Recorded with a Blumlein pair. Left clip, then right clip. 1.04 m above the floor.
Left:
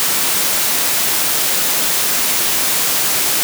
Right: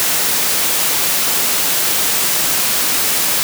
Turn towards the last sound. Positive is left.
No sound to turn to.